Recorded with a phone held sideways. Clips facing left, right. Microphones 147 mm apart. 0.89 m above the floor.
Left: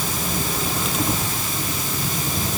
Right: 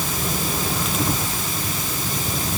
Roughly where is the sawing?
No sawing in this recording.